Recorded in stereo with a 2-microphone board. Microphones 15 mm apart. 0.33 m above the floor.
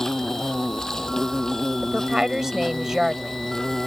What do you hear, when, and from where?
0.0 s an insect: 35° left (ahead or behind)
1.8 s a woman speaking: 35° right (ahead or behind)